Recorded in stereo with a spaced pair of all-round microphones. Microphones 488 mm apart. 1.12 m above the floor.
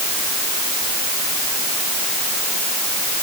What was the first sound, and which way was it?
Only background noise.